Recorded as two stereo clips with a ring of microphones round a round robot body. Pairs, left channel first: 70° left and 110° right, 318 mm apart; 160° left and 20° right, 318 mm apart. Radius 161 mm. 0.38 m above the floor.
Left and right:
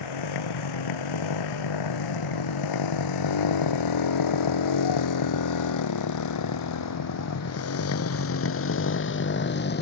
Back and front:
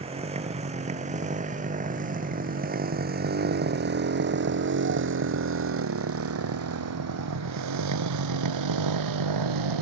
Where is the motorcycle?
50° left; by 9.8 s 5° left.